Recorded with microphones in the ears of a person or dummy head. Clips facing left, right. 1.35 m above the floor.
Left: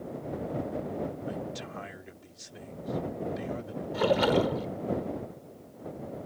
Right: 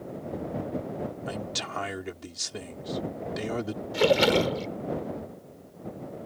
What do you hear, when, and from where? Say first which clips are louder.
1.3 s a man speaking: right 1 dB; 80° right
3.9 s a splash: right 3 dB; 35° right (ahead or behind)